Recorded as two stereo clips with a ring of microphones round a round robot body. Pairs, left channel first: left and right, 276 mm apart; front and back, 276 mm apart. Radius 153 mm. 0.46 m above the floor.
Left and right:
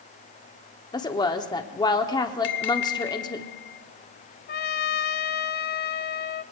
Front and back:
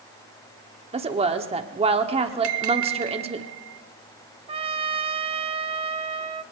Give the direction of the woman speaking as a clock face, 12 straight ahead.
7 o'clock.